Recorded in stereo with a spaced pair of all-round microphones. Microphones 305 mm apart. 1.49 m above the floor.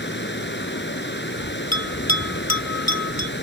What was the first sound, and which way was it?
Running water, 35° left (ahead or behind).